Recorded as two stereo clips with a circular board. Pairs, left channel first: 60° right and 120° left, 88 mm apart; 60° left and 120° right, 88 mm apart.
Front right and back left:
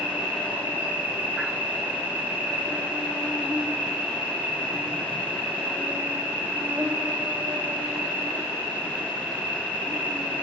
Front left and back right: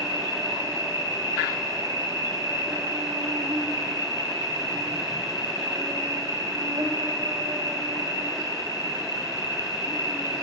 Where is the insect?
165° right, 4.5 m.